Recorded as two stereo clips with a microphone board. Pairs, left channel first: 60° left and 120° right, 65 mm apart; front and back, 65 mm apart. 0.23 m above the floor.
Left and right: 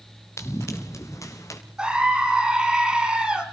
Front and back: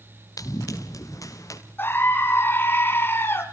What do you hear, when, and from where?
0.4 s running footsteps: 20° left, 4 m; by 1.6 s 30° left, 5 m
1.8 s a scream: 45° right, 2.0 m